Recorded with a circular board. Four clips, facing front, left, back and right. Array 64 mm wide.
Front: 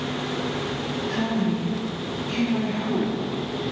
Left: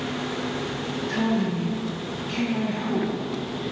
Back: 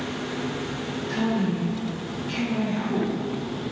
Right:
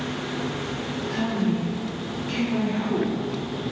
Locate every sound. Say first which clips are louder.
1.1 s a woman speaking: left 1 dB, back 1 dB; 100° left, 0.9 m; by 3.1 s 100° right, 2.5 m